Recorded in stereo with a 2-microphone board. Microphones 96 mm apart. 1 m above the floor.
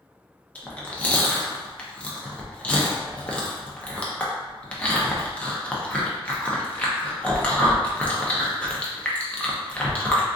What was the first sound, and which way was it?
Chewing, 15° left (ahead or behind).